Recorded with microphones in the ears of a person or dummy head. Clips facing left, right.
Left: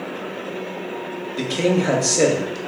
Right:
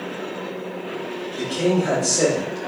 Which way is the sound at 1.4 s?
30° left (ahead or behind).